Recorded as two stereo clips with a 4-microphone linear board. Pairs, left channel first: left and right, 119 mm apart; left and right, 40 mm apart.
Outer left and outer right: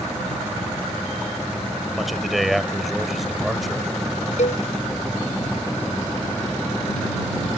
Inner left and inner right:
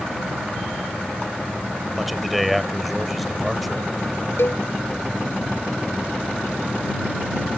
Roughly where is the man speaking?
Centre.